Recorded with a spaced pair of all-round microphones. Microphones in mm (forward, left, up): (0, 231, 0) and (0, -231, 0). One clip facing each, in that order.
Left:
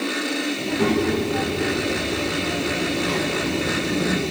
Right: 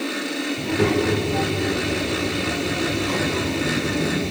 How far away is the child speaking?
About 4 m.